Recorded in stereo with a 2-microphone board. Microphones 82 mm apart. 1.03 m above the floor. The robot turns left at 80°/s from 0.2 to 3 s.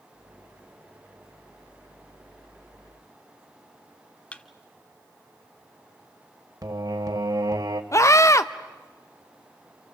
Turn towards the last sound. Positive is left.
turn(degrees=40)  # may be behind; listen again after turning